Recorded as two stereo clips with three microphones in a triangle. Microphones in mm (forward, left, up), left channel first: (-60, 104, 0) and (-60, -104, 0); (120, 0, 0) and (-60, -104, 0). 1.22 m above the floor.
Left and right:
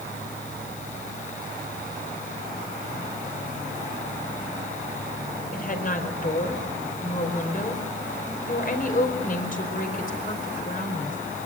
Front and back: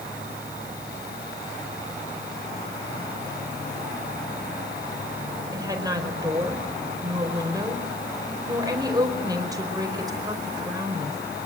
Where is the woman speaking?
140° left, 4.5 m.